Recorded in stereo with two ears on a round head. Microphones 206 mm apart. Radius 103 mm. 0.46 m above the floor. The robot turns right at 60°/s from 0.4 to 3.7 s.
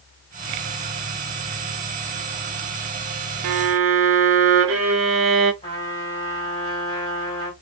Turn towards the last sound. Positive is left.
turn(degrees=20)  # may be behind; listen again after turning